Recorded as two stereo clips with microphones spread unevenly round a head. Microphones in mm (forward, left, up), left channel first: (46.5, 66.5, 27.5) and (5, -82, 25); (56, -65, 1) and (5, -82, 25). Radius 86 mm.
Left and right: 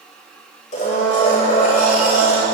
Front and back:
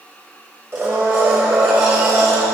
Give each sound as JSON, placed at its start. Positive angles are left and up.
{"t": 0.7, "sound": "a blender", "azimuth_deg": 125, "distance_m": 7.5}